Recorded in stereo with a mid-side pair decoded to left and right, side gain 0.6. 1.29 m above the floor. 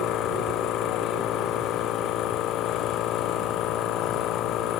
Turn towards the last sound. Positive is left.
turn(degrees=60)